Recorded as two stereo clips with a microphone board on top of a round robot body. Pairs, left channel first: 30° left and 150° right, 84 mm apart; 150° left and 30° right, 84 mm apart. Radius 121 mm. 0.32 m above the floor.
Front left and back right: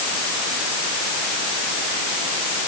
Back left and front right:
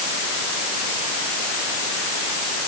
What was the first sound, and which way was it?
Only background noise.